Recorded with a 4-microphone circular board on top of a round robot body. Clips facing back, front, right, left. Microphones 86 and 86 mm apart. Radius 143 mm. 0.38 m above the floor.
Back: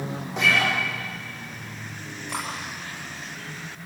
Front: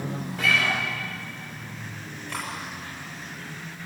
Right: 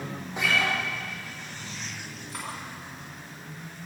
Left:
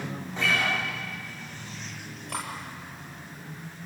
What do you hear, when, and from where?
0.4 s a guitar: 165° right, 10 m
2.3 s cutlery clinking: 105° left, 8 m